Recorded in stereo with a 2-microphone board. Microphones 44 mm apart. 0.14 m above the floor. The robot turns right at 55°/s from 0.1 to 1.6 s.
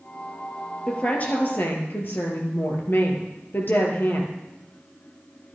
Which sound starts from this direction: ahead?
A woman speaking, at 0.9 s.